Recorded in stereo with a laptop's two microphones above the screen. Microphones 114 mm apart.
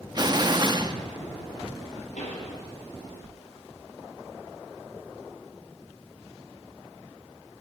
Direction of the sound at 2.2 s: 85° left.